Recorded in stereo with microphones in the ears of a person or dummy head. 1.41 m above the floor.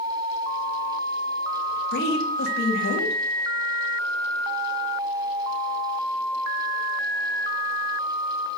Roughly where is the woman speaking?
Left.